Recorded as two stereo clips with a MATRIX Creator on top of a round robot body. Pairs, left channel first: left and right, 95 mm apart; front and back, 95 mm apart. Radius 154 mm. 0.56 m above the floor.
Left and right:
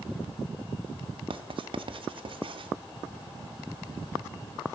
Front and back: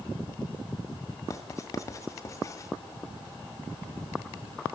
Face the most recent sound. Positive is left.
turn(degrees=-60)